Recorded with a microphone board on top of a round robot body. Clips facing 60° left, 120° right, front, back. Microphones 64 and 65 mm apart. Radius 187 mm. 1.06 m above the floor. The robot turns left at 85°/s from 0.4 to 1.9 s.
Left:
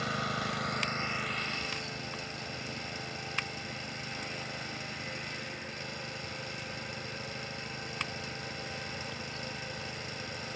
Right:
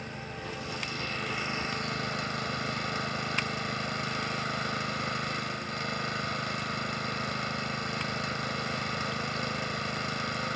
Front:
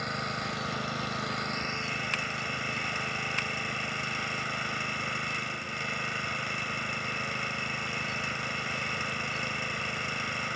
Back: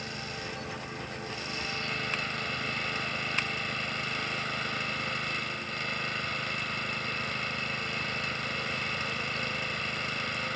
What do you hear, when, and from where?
0.0 s an engine running: 45° left; by 10.6 s 85° right